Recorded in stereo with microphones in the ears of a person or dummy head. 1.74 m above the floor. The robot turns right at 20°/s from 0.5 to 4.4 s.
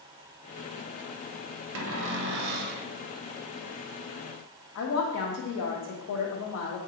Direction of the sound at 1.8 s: 70° right (ahead or behind).